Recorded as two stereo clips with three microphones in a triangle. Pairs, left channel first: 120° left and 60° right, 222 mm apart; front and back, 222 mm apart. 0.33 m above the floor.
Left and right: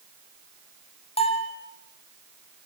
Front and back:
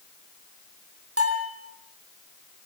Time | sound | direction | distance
1.2 | a bell | 175° right | 4 m